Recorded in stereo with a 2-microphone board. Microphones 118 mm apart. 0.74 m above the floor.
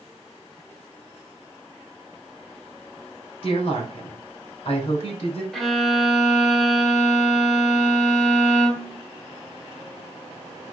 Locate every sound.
3.4 s a woman speaking: 65° left (ahead or behind), 2.5 m
5.5 s a violin: centre (ahead or behind), 1.3 m